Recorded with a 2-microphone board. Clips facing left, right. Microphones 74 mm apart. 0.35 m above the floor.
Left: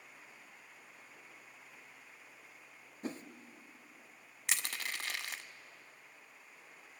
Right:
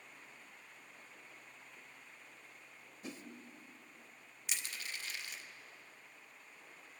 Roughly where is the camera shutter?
No camera shutter in this recording.